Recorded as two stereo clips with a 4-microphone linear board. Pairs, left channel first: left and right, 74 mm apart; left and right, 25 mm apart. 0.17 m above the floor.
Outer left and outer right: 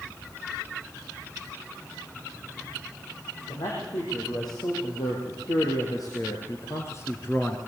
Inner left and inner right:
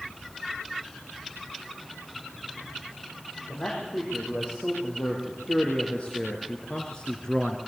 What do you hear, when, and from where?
3.5 s a man speaking: 70° left (ahead or behind), 6.5 m; by 7.6 s 20° left (ahead or behind), 1.7 m